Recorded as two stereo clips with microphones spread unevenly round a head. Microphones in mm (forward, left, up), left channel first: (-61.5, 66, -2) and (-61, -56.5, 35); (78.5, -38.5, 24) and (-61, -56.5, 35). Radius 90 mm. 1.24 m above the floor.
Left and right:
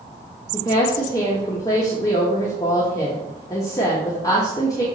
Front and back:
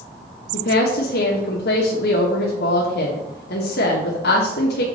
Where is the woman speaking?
15° left, 1.1 m.